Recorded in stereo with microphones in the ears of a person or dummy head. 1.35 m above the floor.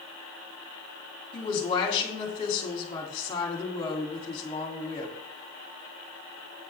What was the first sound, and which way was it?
A woman speaking, 30° left (ahead or behind).